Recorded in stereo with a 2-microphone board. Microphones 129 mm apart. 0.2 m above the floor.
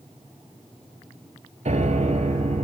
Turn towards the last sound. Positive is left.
turn(degrees=-65)  # may be behind; listen again after turning